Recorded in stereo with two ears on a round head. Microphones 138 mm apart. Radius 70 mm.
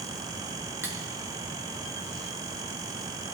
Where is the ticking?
No ticking in this recording.